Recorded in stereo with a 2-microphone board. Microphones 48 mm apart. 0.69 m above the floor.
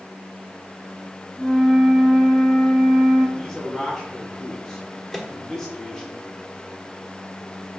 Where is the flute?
20° left (ahead or behind), 2.5 m.